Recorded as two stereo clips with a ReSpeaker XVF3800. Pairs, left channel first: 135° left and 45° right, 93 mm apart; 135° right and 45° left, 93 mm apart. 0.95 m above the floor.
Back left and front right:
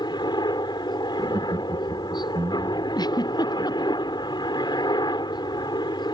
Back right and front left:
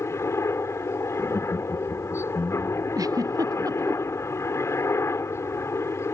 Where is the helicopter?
165° left.